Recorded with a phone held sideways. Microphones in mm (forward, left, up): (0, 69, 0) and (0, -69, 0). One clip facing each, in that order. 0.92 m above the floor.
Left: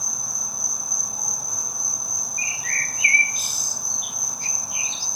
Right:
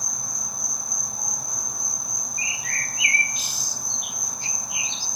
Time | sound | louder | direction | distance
0.0 | an insect | even | 5° left (ahead or behind) | 1.6 m
2.4 | a bird | left 1 dB | 45° left (ahead or behind) | 1.0 m